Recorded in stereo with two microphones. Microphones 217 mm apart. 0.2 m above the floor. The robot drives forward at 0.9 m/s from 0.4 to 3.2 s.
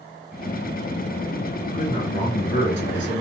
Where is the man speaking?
40° left (ahead or behind), 3 m; by 3.2 s 55° left (ahead or behind), 2 m.